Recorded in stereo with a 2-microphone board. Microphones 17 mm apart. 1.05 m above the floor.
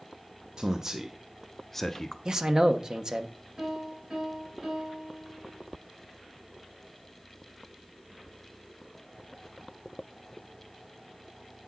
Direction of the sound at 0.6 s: 35° right (ahead or behind).